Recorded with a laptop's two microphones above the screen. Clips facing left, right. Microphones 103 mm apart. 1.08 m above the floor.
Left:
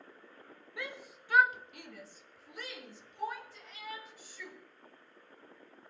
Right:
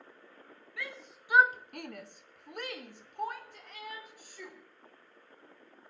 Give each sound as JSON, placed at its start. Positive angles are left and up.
{"t": 0.8, "sound": "a shout", "side_deg": 20, "distance_m": 1.0}